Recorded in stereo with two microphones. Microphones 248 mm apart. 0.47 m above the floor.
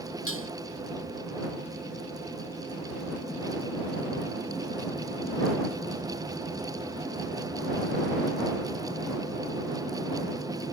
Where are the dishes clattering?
60° left (ahead or behind).